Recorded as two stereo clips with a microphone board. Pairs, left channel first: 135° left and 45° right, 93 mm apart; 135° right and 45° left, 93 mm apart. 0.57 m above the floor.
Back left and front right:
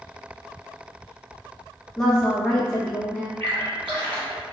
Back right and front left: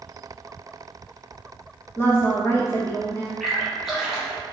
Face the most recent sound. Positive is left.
turn(degrees=-45)